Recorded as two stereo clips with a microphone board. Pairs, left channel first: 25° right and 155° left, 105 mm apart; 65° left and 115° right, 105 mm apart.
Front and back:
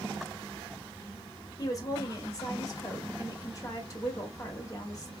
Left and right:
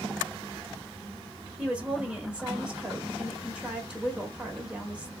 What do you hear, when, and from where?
1.6 s a woman speaking: 40° right, 1.1 m